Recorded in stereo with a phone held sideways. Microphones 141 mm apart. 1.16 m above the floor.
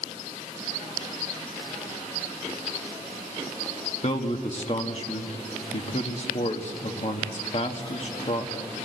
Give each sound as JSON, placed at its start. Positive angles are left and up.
{"t": 4.0, "sound": "a man speaking", "side_deg": 45, "distance_m": 1.9}